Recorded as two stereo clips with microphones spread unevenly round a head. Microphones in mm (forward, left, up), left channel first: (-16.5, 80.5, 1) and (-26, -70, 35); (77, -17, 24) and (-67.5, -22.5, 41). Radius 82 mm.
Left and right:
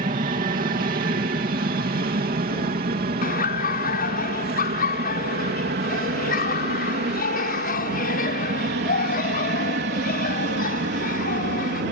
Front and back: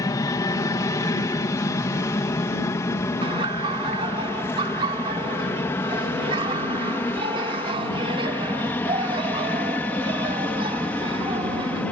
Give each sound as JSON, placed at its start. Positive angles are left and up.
{"t": 0.0, "sound": "an aircraft", "azimuth_deg": -55}
{"t": 3.2, "sound": "laughter", "azimuth_deg": 120}